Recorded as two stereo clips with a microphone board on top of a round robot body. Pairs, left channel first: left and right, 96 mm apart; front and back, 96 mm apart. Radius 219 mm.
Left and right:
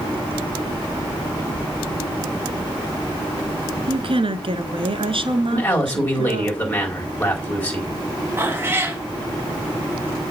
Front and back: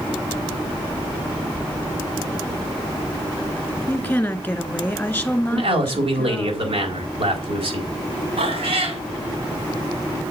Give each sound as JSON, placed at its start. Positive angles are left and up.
{"t": 3.9, "sound": "a woman speaking", "azimuth_deg": -75, "distance_m": 1.9}
{"t": 5.5, "sound": "a man speaking", "azimuth_deg": 160, "distance_m": 4.0}
{"t": 8.4, "sound": "a cat meowing", "azimuth_deg": -155, "distance_m": 2.5}